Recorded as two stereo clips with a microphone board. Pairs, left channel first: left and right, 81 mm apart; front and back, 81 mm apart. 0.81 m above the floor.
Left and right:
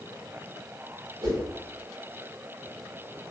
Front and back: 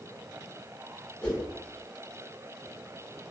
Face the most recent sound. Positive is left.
turn(degrees=-70)